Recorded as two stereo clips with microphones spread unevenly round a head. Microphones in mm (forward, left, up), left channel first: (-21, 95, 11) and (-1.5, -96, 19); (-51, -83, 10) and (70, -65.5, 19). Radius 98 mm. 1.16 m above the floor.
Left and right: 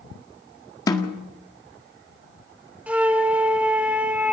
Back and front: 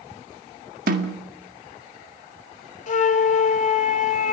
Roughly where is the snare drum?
Ahead left.